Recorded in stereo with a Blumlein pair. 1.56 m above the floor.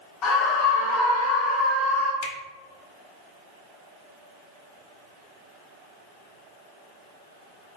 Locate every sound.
0.2 s a scream: 35° left, 1.2 m; by 2.1 s 20° left, 2 m
2.2 s a finger snap: 35° left, 1.8 m